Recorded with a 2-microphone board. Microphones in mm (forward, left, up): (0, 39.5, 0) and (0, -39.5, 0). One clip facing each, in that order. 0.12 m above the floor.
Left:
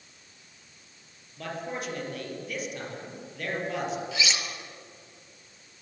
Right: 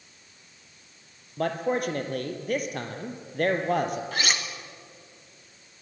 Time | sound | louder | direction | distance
1.4 | a man speaking | right 8 dB | 50° right (ahead or behind) | 2.5 m
4.1 | cutlery clinking | right 2 dB | 50° right (ahead or behind) | 1.3 m